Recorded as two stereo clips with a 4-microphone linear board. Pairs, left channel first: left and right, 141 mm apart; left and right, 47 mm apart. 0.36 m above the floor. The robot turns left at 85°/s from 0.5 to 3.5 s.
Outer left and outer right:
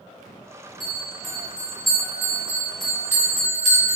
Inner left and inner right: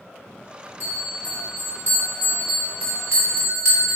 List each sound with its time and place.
0.8 s a bell: 135° left, 1.5 m; by 4.0 s 95° right, 1.5 m